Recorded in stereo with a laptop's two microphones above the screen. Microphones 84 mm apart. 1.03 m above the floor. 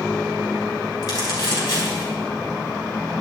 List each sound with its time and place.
1.0 s crumpling: 45° left (ahead or behind), 5 m